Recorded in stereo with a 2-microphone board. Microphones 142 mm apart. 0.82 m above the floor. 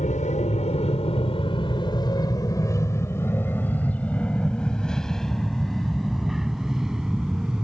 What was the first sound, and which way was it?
An aircraft, 60° left (ahead or behind).